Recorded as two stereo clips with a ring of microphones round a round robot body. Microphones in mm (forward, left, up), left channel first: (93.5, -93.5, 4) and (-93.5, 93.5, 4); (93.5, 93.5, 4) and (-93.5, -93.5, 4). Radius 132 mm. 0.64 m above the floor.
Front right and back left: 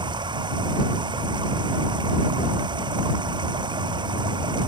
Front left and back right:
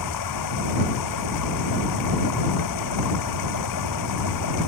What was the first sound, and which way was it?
Running water, 60° left.